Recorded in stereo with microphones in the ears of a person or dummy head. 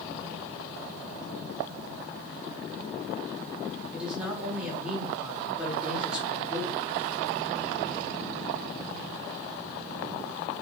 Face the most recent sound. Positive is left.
turn(degrees=-5)  # may be behind; listen again after turning